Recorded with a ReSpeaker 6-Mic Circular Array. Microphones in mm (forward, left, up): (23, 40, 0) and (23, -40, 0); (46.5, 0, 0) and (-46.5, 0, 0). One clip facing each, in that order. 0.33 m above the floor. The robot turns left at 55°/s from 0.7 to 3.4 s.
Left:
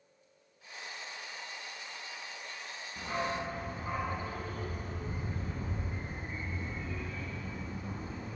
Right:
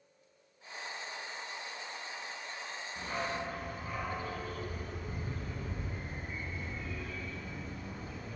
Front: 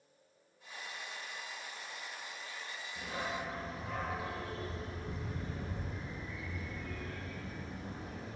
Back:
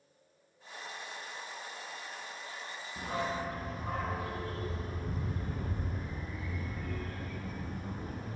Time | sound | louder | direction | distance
3.0 | a dog barking | left 2 dB, back 5 dB | 170° left | 1.2 m